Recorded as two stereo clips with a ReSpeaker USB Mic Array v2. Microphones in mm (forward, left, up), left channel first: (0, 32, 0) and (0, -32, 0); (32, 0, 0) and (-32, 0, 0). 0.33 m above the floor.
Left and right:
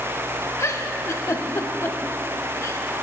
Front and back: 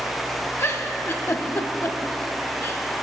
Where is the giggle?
45° left, 0.5 m.